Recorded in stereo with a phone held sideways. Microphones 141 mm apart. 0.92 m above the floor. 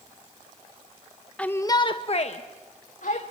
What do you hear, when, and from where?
1.4 s a shout: 10° left (ahead or behind), 0.8 m; by 3.2 s 65° left (ahead or behind), 1.9 m